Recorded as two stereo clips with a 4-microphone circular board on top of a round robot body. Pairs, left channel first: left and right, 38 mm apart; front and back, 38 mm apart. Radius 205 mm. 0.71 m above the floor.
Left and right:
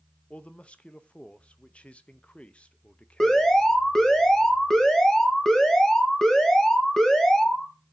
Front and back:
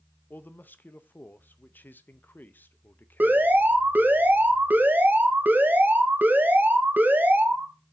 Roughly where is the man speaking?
Ahead left.